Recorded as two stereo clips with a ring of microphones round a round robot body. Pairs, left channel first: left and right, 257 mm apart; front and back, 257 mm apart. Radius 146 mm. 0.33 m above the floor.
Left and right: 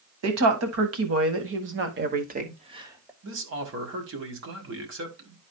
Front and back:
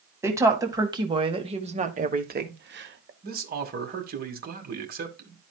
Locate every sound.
0.2 s a woman speaking: 100° right, 2 m; by 3.1 s 170° right, 1.2 m
3.2 s a man speaking: 130° right, 1.9 m